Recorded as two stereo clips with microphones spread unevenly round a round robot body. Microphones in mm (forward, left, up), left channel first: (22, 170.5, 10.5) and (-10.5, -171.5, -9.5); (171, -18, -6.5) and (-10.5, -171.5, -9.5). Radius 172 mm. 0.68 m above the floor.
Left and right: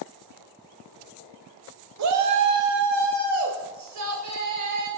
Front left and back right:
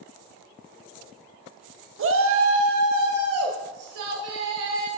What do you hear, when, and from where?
2.0 s a shout: 125° right, 0.9 m; by 4.9 s 135° right, 3 m